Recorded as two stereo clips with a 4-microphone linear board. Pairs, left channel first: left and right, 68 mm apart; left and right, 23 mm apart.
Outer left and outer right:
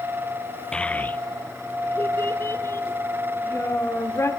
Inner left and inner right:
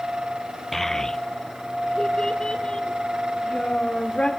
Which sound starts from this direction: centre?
A child speaking, at 0.7 s.